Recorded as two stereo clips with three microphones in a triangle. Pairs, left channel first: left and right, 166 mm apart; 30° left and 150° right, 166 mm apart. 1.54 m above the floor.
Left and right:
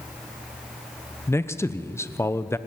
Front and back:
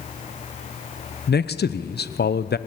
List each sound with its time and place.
1.3 s a man speaking: 15° left, 0.8 m